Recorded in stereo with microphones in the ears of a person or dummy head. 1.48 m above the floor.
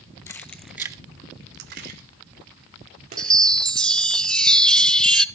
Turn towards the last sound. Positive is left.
turn(degrees=10)  # may be behind; listen again after turning